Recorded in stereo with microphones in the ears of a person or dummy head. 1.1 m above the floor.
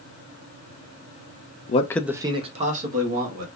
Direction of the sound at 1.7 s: 35° left (ahead or behind).